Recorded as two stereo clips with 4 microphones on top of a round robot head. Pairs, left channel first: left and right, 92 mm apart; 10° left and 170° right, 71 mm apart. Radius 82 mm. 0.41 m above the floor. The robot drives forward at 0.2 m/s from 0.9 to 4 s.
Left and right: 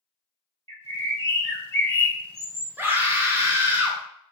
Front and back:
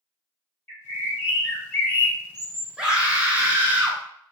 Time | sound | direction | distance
0.7 | a bird | 45° left | 2.0 m
2.8 | a scream | 115° right | 0.9 m